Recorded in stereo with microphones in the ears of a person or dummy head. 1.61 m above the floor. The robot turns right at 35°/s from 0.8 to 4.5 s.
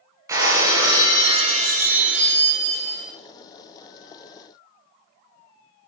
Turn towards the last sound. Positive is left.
turn(degrees=-35)